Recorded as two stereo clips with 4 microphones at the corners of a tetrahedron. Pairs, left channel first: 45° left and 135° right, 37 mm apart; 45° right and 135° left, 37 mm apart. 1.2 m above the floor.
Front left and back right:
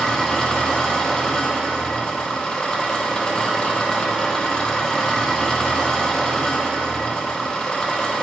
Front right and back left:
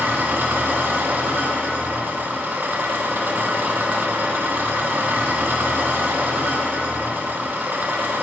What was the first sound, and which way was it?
An engine running, 115° left.